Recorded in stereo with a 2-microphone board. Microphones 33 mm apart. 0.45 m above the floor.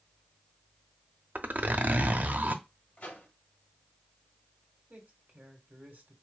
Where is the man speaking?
55° right (ahead or behind), 1.9 m.